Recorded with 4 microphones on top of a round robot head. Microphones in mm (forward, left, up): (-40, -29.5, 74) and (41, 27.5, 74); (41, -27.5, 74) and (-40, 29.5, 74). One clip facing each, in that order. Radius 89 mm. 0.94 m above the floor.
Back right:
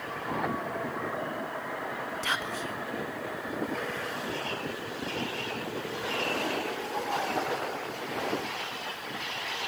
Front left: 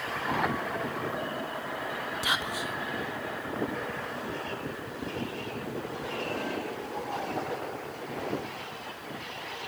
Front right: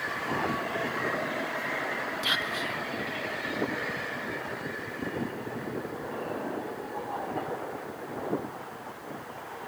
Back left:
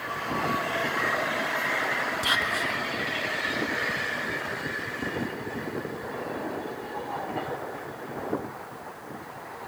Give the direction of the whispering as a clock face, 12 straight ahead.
8 o'clock.